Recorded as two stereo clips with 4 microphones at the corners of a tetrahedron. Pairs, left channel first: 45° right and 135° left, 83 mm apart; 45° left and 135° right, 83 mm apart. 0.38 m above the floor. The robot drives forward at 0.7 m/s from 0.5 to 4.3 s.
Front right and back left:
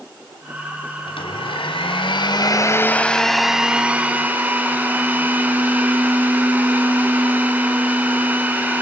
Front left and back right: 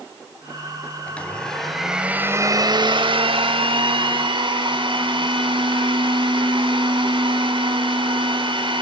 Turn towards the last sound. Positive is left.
turn(degrees=-155)